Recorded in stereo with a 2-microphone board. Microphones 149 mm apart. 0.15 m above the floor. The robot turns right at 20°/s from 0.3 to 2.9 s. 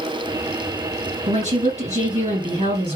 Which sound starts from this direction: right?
A woman speaking, at 1.3 s.